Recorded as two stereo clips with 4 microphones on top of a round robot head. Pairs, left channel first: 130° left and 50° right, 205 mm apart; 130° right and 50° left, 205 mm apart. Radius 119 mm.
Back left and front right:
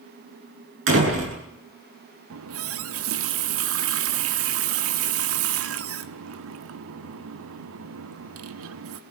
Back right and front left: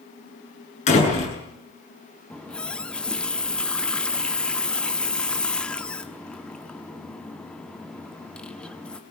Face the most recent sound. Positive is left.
turn(degrees=-45)